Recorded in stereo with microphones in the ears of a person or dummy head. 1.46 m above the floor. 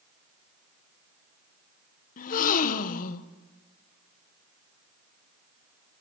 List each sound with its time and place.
2.2 s a gasp: 40° left (ahead or behind), 1.3 m